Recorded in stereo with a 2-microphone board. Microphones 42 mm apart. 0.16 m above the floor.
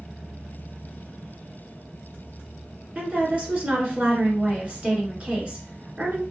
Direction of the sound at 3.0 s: 35° right (ahead or behind).